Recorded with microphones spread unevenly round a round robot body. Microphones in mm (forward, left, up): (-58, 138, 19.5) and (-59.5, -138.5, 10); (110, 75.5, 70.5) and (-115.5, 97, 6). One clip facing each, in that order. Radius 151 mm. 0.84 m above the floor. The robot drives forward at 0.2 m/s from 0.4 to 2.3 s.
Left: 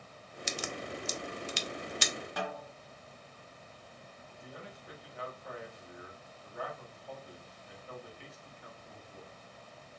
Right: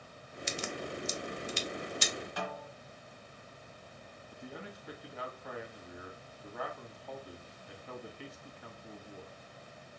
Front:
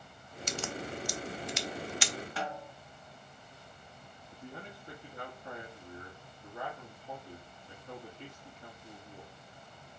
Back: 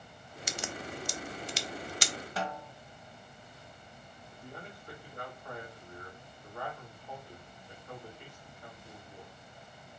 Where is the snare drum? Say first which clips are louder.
Left 1 dB, back 5 dB; 120° left, 1.3 m.